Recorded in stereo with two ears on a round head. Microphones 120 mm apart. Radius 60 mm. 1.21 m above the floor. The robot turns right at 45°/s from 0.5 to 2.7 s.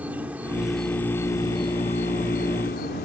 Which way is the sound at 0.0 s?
10° right.